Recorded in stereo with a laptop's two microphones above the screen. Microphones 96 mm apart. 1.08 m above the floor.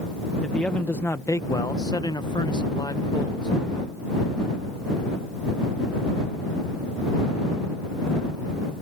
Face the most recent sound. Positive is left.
turn(degrees=50)  # may be behind; listen again after turning